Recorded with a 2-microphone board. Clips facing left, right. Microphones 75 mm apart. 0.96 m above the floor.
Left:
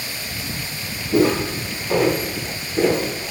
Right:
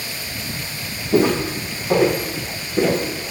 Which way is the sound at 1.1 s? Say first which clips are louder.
Even; 15° right (ahead or behind).